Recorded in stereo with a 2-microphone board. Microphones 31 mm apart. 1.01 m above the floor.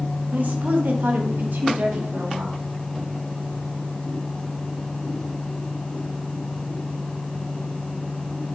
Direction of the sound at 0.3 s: 65° right (ahead or behind).